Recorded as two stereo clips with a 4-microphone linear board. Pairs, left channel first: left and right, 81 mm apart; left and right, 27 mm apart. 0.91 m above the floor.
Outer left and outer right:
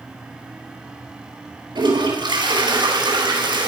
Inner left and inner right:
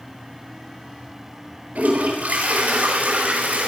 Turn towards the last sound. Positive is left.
turn(degrees=-75)  # may be behind; listen again after turning